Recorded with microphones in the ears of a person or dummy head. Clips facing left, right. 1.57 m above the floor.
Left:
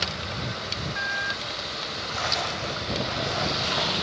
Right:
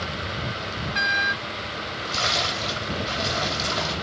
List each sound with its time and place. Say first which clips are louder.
1.8 s a splash: right 2 dB; 55° right (ahead or behind), 3 m